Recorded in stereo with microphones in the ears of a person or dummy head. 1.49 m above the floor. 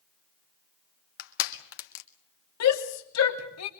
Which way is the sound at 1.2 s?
55° left (ahead or behind).